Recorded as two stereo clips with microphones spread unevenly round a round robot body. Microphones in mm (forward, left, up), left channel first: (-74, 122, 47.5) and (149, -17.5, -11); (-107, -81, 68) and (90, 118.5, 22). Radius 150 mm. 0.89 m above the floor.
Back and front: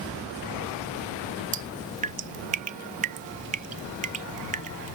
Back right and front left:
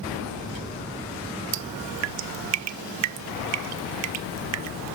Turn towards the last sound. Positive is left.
turn(degrees=35)